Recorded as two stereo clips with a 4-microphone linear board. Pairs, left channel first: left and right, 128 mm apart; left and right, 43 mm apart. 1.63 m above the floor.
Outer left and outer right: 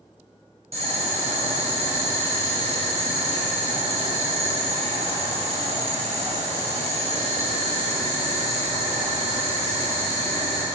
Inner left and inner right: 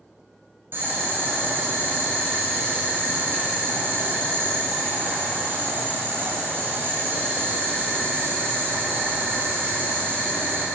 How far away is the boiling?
About 5 m.